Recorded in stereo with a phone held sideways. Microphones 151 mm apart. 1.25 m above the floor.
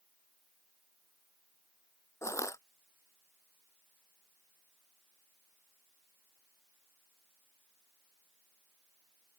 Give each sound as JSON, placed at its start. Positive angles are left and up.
{"t": 2.2, "sound": "crushing", "side_deg": 20}